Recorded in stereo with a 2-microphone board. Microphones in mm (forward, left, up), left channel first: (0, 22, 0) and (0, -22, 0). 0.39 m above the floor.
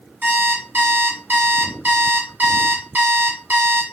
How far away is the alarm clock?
About 1.4 m.